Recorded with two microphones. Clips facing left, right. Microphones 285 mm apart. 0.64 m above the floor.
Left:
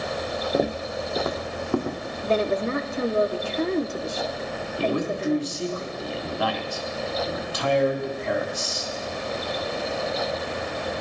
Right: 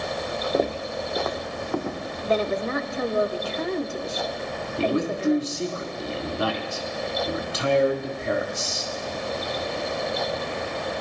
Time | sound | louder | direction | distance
0.5 | footsteps | even | 5° left (ahead or behind) | 0.7 m
2.2 | a woman speaking | left 1 dB | 30° left (ahead or behind) | 1.1 m
4.8 | a man speaking | right 1 dB | 25° right (ahead or behind) | 1.9 m